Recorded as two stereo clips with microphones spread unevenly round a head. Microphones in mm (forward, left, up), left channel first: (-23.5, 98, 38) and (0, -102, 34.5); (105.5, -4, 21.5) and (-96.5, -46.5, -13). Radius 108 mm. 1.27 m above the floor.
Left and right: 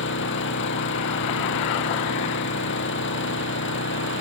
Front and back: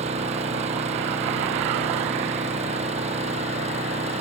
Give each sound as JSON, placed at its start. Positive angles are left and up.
{"t": 0.0, "sound": "an engine running", "azimuth_deg": 130}